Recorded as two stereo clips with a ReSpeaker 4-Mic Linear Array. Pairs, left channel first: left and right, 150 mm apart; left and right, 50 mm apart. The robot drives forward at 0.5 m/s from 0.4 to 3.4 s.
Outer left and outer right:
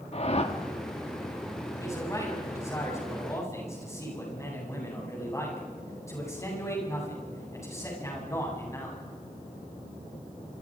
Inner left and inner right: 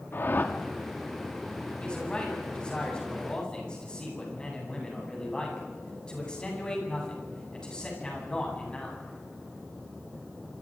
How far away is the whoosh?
About 1.9 m.